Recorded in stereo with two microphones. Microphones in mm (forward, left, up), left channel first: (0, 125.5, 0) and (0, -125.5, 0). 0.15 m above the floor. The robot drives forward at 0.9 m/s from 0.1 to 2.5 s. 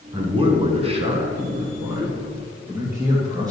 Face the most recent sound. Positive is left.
turn(degrees=-15)  # may be behind; listen again after turning